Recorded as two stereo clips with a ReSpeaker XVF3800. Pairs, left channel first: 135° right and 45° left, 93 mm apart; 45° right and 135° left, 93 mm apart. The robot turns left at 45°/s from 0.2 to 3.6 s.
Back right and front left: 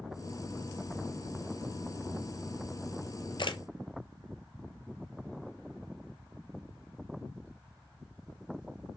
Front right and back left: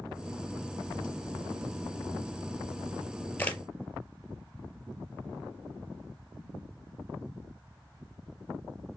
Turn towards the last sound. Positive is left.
turn(degrees=-120)